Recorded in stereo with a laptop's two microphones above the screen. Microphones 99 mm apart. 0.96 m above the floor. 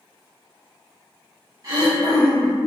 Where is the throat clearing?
35° right (ahead or behind), 1.1 m.